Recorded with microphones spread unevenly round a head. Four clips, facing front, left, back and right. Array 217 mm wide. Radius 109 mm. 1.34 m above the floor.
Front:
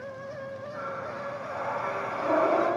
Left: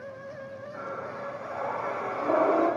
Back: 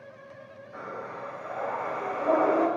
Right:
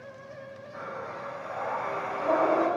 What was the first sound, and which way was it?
Breathing, 170° right.